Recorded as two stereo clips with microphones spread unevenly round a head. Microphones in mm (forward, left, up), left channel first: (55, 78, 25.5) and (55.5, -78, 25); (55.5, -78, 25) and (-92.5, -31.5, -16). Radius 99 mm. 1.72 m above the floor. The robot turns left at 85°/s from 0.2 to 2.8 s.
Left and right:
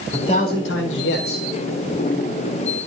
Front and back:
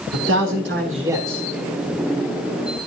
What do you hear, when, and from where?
0.1 s a man speaking: 165° left, 3 m; by 1.5 s 55° left, 3 m